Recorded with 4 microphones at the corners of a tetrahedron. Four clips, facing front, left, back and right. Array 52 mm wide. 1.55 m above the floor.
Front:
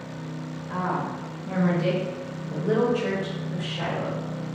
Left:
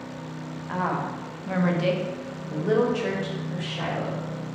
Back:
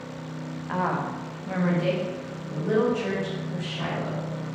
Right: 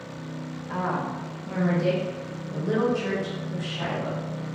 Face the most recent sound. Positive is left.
turn(degrees=70)